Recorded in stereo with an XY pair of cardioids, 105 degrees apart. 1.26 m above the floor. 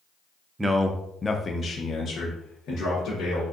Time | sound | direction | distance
0.6 | a man speaking | 20° right | 0.6 m